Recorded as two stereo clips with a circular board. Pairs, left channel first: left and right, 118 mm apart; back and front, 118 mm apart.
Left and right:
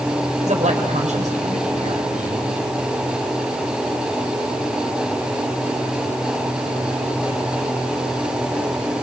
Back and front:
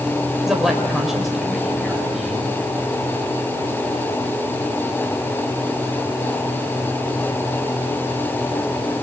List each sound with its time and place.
0.4 s a man speaking: 90° right, 5.5 m; by 2.5 s 85° right, 6.5 m